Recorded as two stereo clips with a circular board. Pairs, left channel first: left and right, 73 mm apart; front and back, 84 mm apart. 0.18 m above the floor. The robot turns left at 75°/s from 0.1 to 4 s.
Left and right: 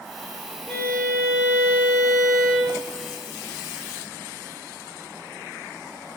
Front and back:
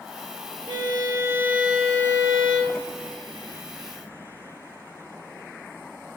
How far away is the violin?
About 0.7 m.